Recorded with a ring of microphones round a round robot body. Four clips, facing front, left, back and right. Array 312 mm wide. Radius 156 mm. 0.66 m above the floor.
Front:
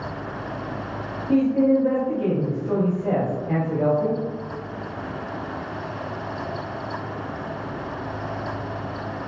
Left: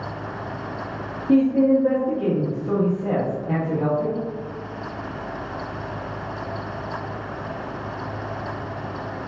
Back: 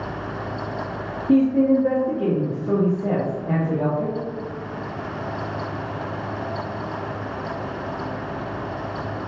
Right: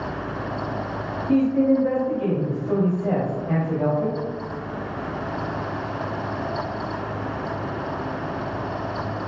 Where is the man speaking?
160° left, 0.9 m.